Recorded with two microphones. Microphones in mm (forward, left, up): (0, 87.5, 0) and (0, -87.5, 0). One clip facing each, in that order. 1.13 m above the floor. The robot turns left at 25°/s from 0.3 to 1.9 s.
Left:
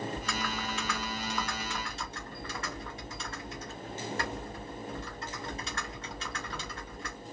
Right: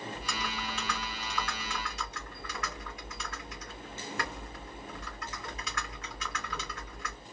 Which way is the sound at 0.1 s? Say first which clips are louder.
Left 3 dB; 170° right.